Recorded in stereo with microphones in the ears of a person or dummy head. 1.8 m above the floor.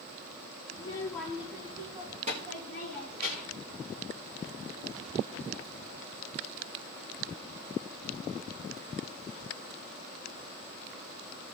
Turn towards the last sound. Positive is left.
turn(degrees=-55)  # may be behind; listen again after turning